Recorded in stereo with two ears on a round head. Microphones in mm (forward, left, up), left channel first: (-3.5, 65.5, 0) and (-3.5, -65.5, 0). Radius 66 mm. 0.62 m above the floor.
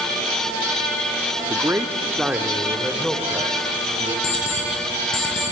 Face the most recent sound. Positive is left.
turn(degrees=65)  # may be behind; listen again after turning